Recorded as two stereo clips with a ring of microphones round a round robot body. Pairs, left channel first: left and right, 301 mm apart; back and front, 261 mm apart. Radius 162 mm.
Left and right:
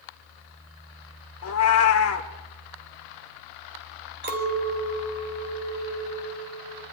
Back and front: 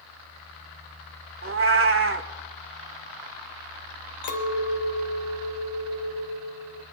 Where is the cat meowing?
45° left, 1.2 m.